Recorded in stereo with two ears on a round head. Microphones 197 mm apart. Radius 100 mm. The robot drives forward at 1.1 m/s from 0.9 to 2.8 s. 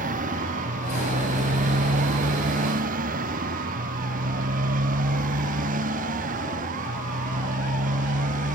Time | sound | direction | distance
0.0 | a motorcycle | 35° right (ahead or behind) | ?